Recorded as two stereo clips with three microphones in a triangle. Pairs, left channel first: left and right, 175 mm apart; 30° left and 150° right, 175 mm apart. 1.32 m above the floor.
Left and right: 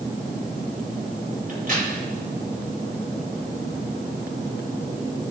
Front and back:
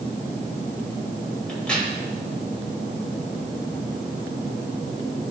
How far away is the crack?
About 4.5 m.